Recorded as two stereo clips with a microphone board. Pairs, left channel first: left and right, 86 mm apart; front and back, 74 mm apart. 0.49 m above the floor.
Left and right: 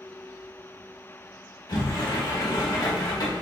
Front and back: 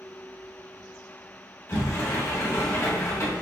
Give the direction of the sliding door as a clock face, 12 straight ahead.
10 o'clock.